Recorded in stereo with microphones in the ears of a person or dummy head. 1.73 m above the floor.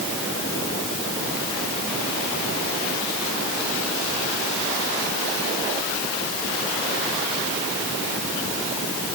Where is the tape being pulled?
No tape being pulled in this recording.